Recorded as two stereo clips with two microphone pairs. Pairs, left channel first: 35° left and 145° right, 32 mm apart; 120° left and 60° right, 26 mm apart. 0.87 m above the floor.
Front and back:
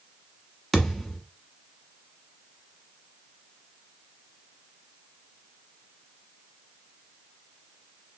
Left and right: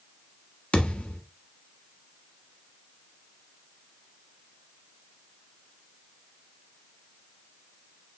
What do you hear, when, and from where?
0.7 s a thud: 120° left, 1.0 m